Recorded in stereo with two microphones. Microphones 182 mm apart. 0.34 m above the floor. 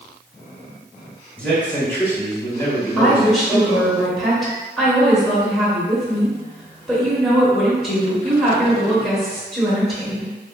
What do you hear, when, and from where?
1.4 s a man speaking: 10° left (ahead or behind), 1.4 m; by 3.9 s 25° left (ahead or behind), 2 m
3.0 s a woman speaking: centre (ahead or behind), 0.9 m